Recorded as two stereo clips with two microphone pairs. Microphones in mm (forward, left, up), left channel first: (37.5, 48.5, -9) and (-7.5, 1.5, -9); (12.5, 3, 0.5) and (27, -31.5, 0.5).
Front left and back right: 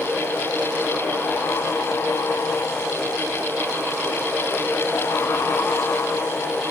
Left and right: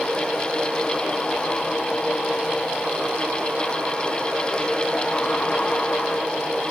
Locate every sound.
Only background noise.